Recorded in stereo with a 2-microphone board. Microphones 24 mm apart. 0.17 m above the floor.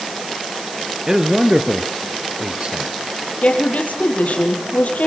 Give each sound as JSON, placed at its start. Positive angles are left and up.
{"t": 1.1, "sound": "a man speaking", "side_deg": -25, "distance_m": 2.0}
{"t": 3.4, "sound": "a woman speaking", "side_deg": 75, "distance_m": 5.0}